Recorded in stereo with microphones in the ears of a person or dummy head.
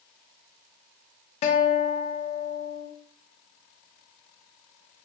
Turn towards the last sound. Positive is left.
turn(degrees=35)  # may be behind; listen again after turning